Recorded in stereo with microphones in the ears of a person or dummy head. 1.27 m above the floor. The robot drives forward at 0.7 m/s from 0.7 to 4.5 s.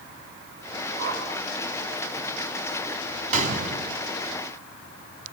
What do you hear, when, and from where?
1.0 s a whoosh: 65° right (ahead or behind), 6 m; by 1.2 s 70° right (ahead or behind), 6 m
3.3 s a gunshot: 50° right (ahead or behind), 4.5 m; by 4.0 s 55° right (ahead or behind), 4 m